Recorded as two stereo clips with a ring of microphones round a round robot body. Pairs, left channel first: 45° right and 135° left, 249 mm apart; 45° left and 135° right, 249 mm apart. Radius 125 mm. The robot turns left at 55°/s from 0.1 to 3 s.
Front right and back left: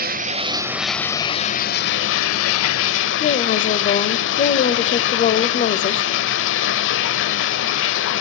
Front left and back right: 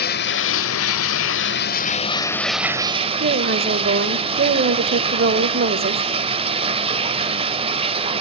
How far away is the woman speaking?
About 1.3 m.